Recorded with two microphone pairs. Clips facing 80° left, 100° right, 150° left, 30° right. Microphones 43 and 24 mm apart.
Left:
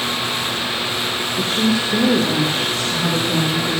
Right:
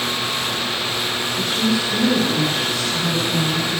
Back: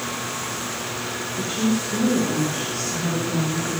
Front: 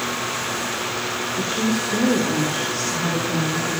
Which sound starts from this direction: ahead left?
A woman speaking, at 1.4 s.